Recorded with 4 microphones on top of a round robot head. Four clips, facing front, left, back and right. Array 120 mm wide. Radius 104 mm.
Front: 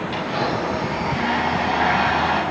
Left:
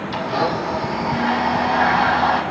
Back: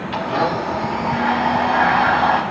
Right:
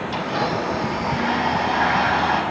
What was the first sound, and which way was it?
A blender, 160° left.